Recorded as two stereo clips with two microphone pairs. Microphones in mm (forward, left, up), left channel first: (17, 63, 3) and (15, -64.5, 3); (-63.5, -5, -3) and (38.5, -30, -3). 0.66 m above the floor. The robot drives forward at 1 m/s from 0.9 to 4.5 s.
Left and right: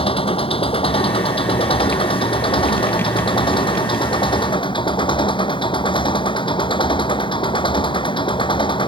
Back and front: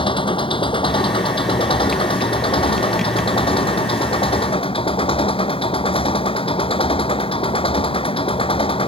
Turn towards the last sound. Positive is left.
turn(degrees=140)